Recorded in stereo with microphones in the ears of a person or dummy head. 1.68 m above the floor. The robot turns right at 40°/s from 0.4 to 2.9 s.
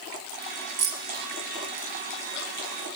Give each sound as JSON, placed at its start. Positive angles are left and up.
{"t": 0.8, "sound": "keys jangling", "side_deg": -55, "distance_m": 1.2}